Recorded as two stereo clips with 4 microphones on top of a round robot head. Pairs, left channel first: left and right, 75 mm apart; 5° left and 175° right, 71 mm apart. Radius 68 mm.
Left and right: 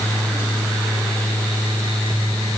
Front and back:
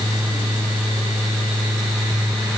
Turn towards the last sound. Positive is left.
No sound to turn to.